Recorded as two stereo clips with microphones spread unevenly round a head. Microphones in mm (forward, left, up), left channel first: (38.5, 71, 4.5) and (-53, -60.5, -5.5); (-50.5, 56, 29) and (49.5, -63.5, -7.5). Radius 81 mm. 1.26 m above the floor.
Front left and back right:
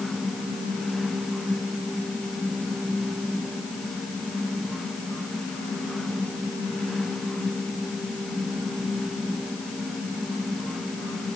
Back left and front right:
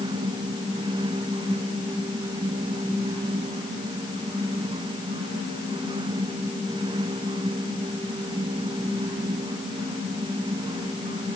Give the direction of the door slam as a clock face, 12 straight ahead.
I don't hear a door slam.